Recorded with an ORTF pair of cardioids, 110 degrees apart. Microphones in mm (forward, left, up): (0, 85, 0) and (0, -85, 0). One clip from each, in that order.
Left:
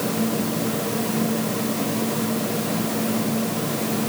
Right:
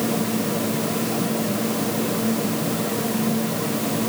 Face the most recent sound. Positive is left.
No sound to turn to.